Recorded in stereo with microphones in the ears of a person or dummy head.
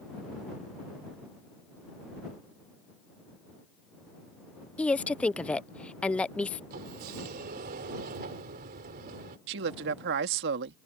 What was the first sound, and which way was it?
A woman speaking, 5° left (ahead or behind).